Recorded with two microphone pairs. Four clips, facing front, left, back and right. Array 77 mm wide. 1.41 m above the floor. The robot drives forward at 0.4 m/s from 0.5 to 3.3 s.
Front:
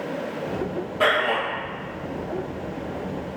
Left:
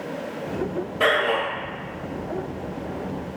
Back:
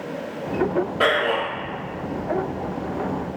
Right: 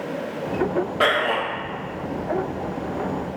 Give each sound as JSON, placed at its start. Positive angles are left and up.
{"t": 1.0, "sound": "a man speaking", "azimuth_deg": -105, "distance_m": 1.6}